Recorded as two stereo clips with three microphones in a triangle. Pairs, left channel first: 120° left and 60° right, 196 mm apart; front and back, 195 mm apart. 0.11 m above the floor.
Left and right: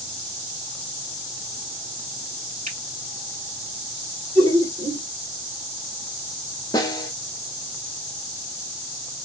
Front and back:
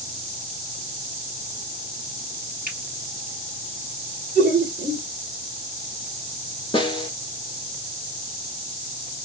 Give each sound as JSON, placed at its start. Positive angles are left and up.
{"t": 2.7, "sound": "a finger snap", "azimuth_deg": -25, "distance_m": 2.0}
{"t": 4.3, "sound": "laughter", "azimuth_deg": -20, "distance_m": 2.0}
{"t": 6.7, "sound": "a snare drum", "azimuth_deg": 55, "distance_m": 0.9}